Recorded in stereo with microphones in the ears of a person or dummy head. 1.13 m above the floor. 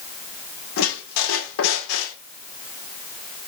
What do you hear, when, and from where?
0.8 s a squeak: 80° left, 1.9 m